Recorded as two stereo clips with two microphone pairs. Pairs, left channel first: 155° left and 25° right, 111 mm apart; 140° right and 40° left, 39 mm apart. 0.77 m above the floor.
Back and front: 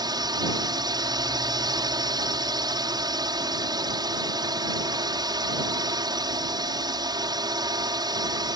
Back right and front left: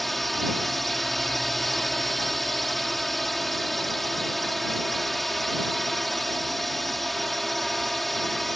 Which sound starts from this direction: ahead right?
A drone, at 0.0 s.